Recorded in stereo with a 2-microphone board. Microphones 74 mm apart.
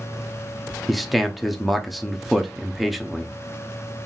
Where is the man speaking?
Centre (ahead or behind), 0.6 m.